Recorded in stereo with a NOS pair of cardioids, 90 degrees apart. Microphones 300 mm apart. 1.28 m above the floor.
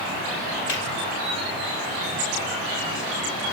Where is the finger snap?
55° left, 5.5 m.